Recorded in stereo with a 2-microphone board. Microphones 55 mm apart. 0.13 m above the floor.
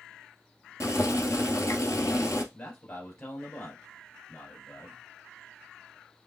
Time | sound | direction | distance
0.8 | boiling | 65° left (ahead or behind) | 1.3 m
2.5 | a man speaking | 45° left (ahead or behind) | 2.5 m